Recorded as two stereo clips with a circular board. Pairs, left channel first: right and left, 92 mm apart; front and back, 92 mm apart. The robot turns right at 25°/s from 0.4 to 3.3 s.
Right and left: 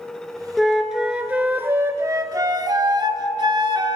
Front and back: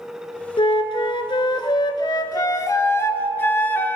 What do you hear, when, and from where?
0.6 s a flute: straight ahead, 0.6 m; by 4.0 s 65° left, 0.6 m